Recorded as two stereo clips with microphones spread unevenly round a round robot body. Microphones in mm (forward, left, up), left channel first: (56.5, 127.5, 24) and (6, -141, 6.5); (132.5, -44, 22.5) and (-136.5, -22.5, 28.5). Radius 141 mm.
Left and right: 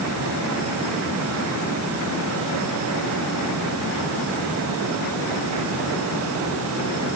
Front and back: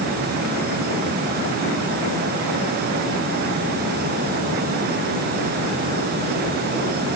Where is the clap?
No clap in this recording.